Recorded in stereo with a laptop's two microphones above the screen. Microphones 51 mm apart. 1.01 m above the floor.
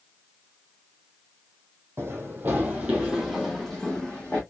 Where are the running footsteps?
50° right (ahead or behind), 1.6 m; by 4.4 s 20° left (ahead or behind), 2 m.